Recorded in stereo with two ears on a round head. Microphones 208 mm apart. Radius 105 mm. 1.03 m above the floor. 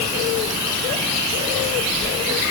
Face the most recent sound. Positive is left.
No sound to turn to.